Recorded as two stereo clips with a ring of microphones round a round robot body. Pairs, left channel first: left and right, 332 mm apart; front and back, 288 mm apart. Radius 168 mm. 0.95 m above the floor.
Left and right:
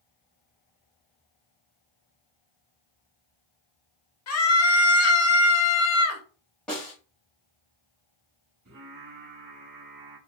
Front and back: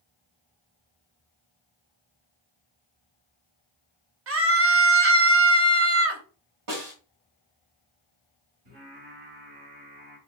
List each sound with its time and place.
4.3 s a scream: 135° left, 1.2 m
6.7 s a snare drum: 175° left, 2.5 m
8.7 s singing: 150° right, 3.5 m